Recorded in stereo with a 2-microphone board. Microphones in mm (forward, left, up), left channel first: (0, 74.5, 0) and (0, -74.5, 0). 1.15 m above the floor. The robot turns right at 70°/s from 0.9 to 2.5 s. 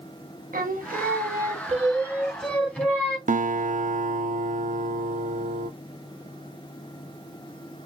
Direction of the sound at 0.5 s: 100° right.